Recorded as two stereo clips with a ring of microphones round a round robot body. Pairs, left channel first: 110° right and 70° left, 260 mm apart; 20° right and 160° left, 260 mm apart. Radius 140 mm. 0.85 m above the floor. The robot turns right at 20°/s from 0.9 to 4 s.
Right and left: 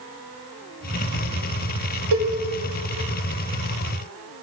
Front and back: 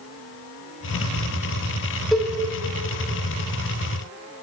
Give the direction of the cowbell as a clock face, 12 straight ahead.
10 o'clock.